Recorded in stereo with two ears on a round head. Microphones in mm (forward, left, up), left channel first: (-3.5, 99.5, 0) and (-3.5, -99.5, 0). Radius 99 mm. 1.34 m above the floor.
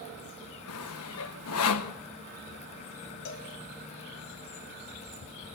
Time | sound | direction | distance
0.7 | sawing | 75° left (ahead or behind) | 1.2 m
3.2 | a cowbell | 60° left (ahead or behind) | 3 m